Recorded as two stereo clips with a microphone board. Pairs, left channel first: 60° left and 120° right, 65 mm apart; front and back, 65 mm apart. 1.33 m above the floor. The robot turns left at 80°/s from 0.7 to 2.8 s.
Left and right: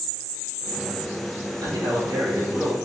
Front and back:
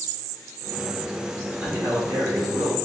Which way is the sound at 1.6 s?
110° right.